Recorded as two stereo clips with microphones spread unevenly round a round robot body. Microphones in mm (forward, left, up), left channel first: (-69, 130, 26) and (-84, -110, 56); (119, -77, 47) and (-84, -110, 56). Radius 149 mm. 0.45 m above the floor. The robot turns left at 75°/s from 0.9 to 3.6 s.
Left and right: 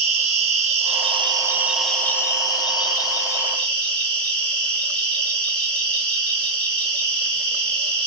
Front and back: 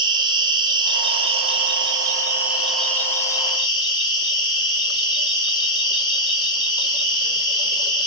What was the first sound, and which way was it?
An insect, 130° right.